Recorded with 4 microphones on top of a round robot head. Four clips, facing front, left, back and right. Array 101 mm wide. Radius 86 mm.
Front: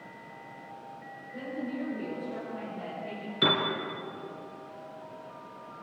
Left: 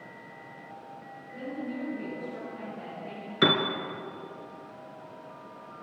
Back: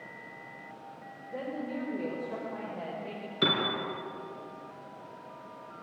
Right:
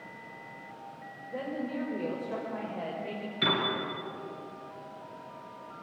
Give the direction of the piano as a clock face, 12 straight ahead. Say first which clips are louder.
Left 5 dB, front 2 dB; 9 o'clock.